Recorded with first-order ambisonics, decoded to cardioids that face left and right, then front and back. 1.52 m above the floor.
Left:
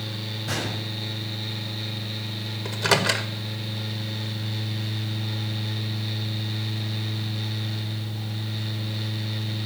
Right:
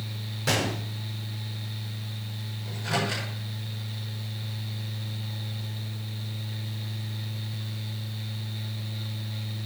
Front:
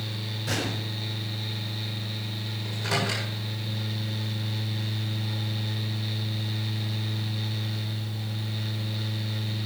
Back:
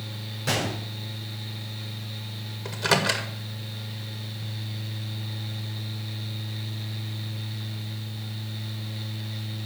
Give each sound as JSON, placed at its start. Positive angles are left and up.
{"t": 0.5, "sound": "a gunshot", "azimuth_deg": -115, "distance_m": 4.0}
{"t": 2.6, "sound": "a microwave", "azimuth_deg": 120, "distance_m": 1.7}